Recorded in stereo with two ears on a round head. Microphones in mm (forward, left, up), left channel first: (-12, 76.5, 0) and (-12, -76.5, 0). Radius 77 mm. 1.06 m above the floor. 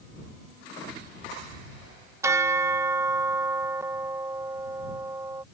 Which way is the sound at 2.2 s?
15° right (ahead or behind).